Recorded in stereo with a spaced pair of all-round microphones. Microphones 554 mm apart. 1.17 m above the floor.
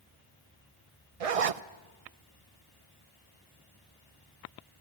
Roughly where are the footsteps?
I don't hear footsteps.